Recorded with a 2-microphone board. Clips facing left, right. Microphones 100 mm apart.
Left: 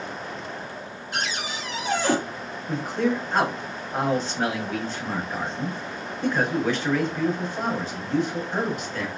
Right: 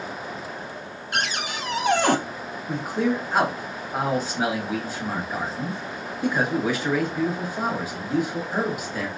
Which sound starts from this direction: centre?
A man speaking, at 2.7 s.